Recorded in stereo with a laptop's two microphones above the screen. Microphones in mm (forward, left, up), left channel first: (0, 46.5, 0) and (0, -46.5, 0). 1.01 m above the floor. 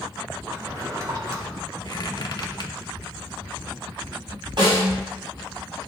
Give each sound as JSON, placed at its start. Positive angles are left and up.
{"t": 0.5, "sound": "a drawer", "side_deg": -40, "distance_m": 2.5}
{"t": 1.9, "sound": "a squeak", "side_deg": 50, "distance_m": 1.0}
{"t": 4.6, "sound": "a snare drum", "side_deg": -55, "distance_m": 4.0}